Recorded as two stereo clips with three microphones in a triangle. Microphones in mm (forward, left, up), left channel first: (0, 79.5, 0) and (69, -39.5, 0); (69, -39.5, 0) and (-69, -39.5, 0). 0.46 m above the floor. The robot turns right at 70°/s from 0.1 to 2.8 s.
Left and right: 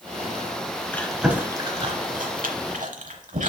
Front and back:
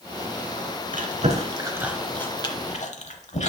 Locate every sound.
0.9 s chewing: 165° right, 0.9 m; by 3.5 s 35° right, 0.9 m